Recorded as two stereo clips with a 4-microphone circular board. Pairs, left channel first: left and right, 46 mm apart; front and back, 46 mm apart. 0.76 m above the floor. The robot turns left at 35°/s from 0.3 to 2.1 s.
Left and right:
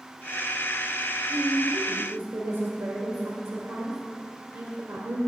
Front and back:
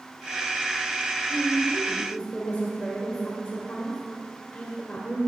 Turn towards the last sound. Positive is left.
turn(degrees=-80)